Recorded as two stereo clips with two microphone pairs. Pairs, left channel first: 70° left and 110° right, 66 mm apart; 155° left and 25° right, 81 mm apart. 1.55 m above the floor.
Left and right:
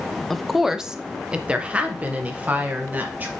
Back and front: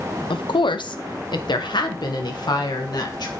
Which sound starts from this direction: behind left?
A woman speaking, at 0.3 s.